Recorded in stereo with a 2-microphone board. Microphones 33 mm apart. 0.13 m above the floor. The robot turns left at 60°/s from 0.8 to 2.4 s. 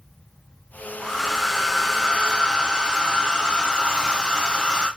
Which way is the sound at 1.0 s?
5° left (ahead or behind).